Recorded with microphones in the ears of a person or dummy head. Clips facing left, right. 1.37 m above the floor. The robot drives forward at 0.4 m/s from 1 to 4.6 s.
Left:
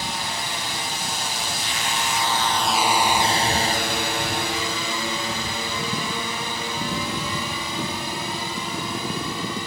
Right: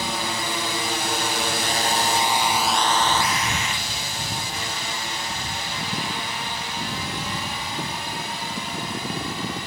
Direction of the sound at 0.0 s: 60° right (ahead or behind).